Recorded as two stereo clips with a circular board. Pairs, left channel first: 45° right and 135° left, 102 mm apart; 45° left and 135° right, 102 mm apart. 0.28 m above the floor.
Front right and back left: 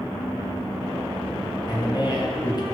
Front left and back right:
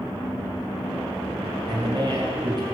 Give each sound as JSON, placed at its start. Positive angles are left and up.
{"t": 1.7, "sound": "a man speaking", "azimuth_deg": -90, "distance_m": 3.5}